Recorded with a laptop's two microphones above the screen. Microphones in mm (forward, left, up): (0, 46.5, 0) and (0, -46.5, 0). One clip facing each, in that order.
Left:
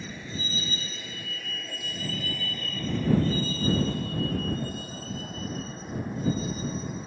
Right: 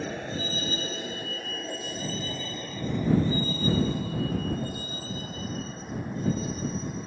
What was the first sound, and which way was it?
A vehicle, 65° right (ahead or behind).